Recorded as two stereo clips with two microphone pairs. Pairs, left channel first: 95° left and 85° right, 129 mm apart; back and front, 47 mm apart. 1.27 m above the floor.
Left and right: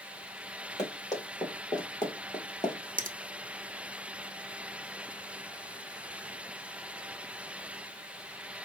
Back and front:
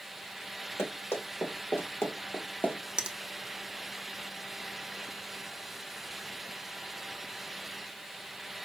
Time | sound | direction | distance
0.8 | running footsteps | 155° left | 3.5 m
3.0 | a finger snap | 75° right | 1.0 m